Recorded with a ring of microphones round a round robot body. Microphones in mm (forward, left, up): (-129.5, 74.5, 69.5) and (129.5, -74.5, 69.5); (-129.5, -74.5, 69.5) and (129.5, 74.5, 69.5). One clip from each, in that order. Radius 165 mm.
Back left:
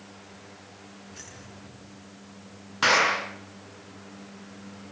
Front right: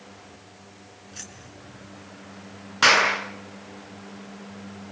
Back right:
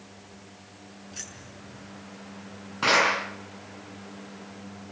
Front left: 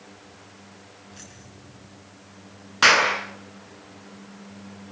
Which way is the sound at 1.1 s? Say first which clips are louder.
Front right 5 dB, back right 8 dB; 95° right.